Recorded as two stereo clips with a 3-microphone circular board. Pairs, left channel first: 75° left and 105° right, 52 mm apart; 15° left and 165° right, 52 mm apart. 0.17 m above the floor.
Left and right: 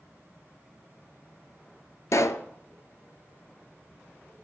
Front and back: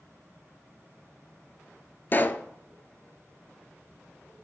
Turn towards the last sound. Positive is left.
turn(degrees=65)